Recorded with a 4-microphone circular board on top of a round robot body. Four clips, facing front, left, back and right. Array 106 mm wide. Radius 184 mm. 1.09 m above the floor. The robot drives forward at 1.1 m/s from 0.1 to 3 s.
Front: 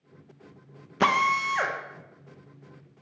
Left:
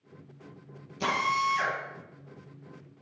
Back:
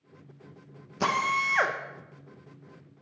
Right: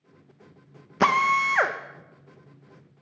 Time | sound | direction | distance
1.0 | a drill | 65° right | 1.2 m